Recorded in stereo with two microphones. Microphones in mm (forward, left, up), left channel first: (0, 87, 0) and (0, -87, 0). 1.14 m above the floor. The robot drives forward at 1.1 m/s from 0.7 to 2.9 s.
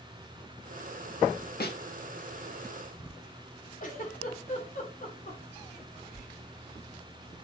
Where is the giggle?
50° left (ahead or behind), 3 m.